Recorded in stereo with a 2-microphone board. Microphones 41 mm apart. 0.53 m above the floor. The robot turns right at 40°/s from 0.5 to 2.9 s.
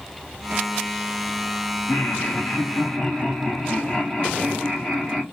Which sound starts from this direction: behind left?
Laughter, at 1.9 s.